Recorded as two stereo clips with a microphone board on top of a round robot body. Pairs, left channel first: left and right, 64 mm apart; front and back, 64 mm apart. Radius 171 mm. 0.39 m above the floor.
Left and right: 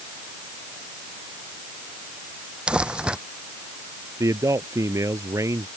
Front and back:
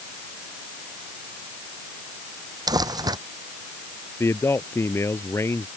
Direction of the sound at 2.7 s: 165° right.